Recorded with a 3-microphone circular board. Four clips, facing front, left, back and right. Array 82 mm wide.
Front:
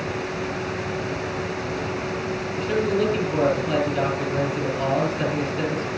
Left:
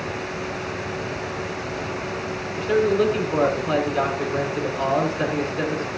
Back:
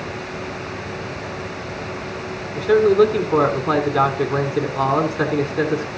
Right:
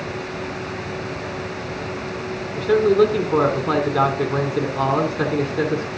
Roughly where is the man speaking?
Behind right.